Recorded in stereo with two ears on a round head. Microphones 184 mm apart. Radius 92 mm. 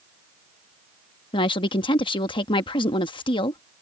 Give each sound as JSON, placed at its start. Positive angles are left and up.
{"t": 1.3, "sound": "a woman speaking", "side_deg": 25}